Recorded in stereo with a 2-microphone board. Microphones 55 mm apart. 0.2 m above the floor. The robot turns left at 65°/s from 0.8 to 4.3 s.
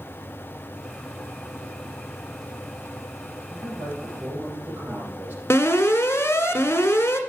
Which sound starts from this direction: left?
An alarm, at 5.5 s.